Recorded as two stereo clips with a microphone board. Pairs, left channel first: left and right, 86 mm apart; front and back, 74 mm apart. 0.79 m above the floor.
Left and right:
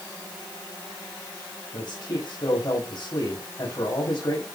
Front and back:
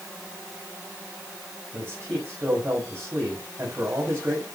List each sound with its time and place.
1.7 s a man speaking: 130° left, 6.5 m